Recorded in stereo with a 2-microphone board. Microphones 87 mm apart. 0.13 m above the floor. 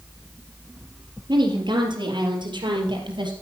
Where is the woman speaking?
60° right (ahead or behind), 3.5 m; by 3.3 s 65° right (ahead or behind), 3.5 m.